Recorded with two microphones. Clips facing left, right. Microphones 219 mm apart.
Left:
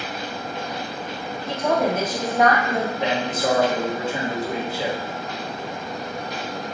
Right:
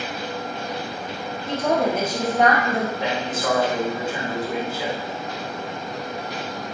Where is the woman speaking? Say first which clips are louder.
Even; 25° right (ahead or behind), 1.4 m; by 2.9 s centre (ahead or behind), 1.6 m.